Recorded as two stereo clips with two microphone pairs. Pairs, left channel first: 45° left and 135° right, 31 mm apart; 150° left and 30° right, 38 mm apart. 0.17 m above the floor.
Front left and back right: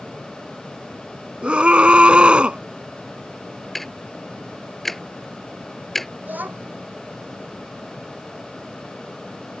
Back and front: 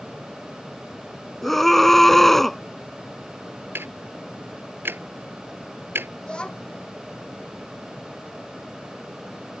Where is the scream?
135° right.